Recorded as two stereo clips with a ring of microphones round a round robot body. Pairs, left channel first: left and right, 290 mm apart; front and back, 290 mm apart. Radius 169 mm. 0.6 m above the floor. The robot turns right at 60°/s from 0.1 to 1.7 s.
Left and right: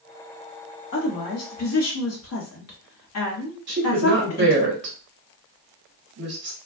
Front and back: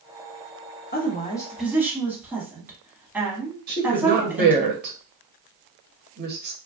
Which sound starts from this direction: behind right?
A woman speaking, at 3.7 s.